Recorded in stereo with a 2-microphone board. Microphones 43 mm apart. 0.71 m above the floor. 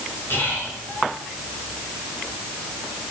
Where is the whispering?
55° left (ahead or behind), 4.5 m.